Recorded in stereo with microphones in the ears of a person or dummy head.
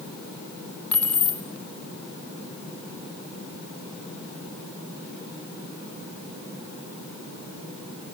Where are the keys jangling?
15° left (ahead or behind), 1.3 m.